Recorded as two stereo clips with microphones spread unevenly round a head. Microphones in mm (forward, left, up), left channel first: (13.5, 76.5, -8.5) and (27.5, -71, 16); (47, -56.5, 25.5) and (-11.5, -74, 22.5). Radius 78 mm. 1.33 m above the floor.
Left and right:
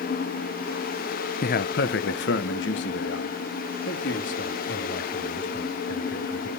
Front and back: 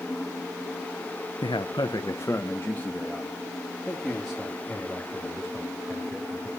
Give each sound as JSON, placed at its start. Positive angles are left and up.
{"t": 1.4, "sound": "a man speaking", "azimuth_deg": 60, "distance_m": 0.5}